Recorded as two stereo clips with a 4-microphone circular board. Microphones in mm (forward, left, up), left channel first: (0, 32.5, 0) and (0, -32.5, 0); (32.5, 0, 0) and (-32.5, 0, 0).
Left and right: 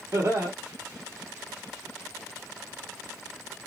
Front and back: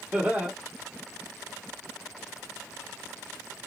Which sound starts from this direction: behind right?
Laughter, at 0.1 s.